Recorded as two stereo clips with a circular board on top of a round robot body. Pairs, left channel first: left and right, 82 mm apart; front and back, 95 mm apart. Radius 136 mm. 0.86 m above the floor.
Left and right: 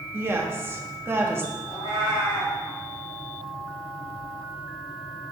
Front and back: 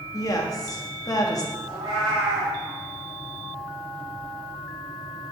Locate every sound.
0.1 s a woman speaking: 40° right, 1.3 m
1.7 s a cat meowing: 130° left, 0.9 m